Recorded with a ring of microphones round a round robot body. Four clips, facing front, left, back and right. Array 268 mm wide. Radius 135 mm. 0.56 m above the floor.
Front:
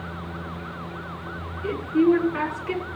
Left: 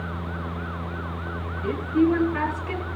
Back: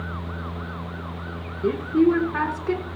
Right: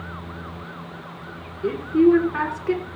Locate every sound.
1.6 s a woman speaking: 150° right, 7.5 m